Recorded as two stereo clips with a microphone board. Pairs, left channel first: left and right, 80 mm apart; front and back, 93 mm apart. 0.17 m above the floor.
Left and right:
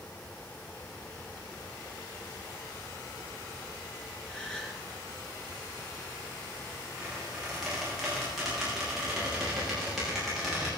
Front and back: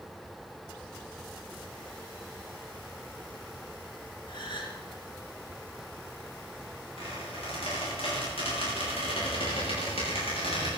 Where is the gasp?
15° left, 2.5 m.